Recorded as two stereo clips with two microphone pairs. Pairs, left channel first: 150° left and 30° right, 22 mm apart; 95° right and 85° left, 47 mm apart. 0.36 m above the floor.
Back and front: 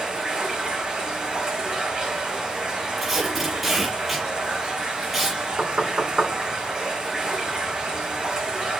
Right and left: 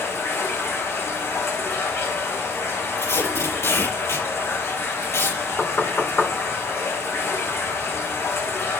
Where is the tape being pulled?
110° right, 7 m.